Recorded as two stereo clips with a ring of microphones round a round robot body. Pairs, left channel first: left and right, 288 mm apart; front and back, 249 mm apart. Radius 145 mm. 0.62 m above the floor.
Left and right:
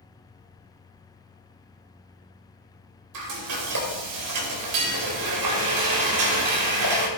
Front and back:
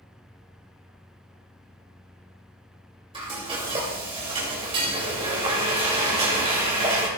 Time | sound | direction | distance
3.1 | frying | 110° right | 2.5 m